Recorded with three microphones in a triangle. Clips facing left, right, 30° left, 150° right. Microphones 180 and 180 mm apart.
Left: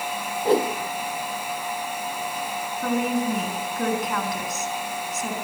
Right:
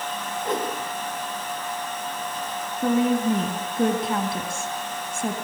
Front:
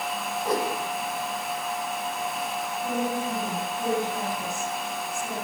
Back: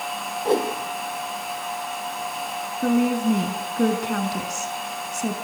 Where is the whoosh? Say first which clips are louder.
Left 7 dB, back 6 dB; 150° left, 3 m.